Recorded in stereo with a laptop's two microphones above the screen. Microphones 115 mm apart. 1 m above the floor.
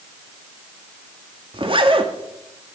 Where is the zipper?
50° right (ahead or behind), 1.7 m.